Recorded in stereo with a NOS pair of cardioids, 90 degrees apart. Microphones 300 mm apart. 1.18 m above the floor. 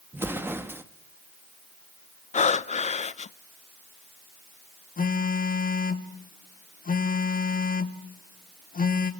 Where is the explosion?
5° right, 1.3 m.